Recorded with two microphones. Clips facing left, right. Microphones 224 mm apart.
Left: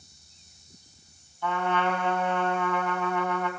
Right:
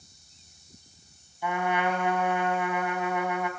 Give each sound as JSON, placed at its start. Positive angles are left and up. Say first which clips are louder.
{"t": 1.4, "sound": "a trumpet", "louder": "even", "side_deg": -15, "distance_m": 2.5}